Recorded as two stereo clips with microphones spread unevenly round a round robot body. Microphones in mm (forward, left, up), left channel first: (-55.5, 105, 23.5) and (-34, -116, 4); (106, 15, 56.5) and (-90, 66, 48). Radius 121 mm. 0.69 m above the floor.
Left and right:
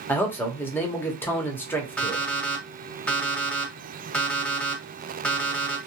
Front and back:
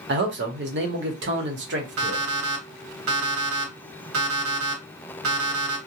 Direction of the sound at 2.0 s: Straight behind.